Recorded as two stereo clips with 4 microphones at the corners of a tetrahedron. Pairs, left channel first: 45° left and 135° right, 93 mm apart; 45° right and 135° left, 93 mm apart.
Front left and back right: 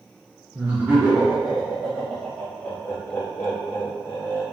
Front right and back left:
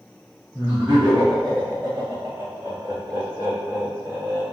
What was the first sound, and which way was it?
Laughter, 170° right.